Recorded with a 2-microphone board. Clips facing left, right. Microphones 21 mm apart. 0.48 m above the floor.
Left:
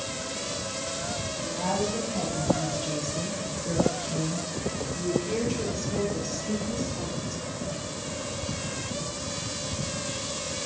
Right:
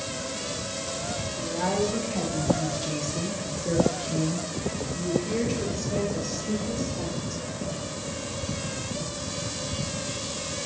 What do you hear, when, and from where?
1.4 s a woman speaking: 65° right (ahead or behind), 7 m; by 7.4 s 30° right (ahead or behind), 10.5 m